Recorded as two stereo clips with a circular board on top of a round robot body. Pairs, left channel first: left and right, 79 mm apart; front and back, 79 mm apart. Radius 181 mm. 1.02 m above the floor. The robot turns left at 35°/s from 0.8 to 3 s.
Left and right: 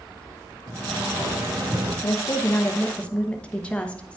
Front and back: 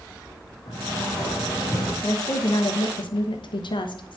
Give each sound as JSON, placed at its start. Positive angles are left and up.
{"t": 0.7, "sound": "a sliding door", "azimuth_deg": -30, "distance_m": 2.5}
{"t": 2.0, "sound": "a woman speaking", "azimuth_deg": 50, "distance_m": 1.2}